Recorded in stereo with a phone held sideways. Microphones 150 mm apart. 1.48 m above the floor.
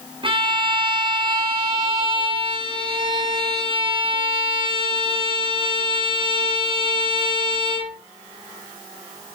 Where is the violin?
35° right (ahead or behind), 5 m.